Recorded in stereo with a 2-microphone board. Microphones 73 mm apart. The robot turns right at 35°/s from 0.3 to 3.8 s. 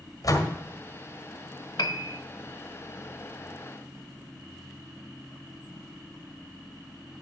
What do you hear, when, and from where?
0.2 s a door slam: 50° left (ahead or behind), 1.8 m; by 0.6 s 60° left (ahead or behind), 1.8 m
1.8 s a piano: 65° left (ahead or behind), 0.6 m; by 2.2 s 55° left (ahead or behind), 0.6 m